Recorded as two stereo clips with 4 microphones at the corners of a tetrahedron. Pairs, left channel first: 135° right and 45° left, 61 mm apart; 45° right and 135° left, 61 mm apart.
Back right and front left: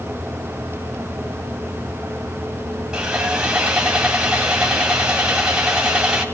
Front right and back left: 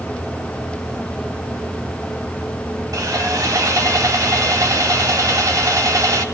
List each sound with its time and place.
2.9 s sawing: 125° left, 1.8 m